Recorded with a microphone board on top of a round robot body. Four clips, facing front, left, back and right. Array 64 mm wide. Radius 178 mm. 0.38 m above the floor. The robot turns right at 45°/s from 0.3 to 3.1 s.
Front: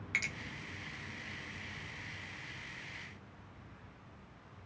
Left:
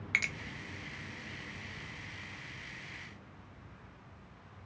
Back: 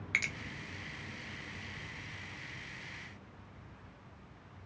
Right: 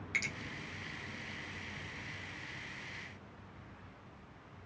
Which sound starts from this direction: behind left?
A finger snap, at 0.1 s.